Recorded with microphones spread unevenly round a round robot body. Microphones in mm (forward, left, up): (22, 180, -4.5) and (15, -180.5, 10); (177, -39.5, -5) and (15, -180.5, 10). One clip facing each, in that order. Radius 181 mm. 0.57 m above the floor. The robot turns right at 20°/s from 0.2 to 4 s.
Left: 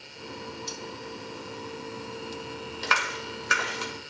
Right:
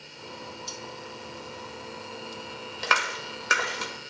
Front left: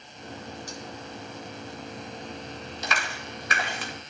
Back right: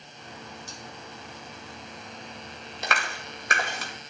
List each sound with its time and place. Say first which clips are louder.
0.7 s cutlery clinking: left 2 dB, front left 5 dB; 80° left, 1.6 m
2.8 s a clap: right 3 dB, back right 3 dB; 110° right, 2 m; by 3.9 s 90° right, 2 m